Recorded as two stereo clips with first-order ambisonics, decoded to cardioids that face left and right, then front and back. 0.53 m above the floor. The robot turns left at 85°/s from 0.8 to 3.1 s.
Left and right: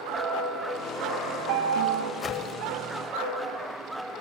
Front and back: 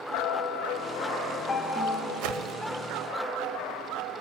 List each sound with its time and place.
0.1 s a piano: 15° right, 2.5 m; by 2.1 s 125° right, 2.5 m
2.2 s a whoosh: 170° left, 0.7 m; by 2.5 s 140° left, 0.7 m